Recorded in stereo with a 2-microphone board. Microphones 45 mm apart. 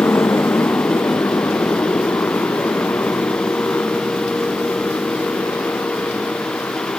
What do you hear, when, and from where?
0.0 s a motorcycle: 75° left (ahead or behind); by 7.0 s 60° left (ahead or behind)